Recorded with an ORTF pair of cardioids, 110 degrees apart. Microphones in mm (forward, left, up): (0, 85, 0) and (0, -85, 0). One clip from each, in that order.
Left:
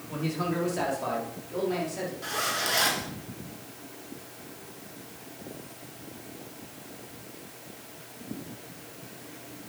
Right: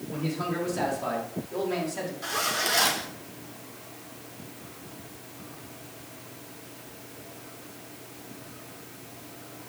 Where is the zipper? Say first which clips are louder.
Right 2 dB; 10° right, 2.5 m.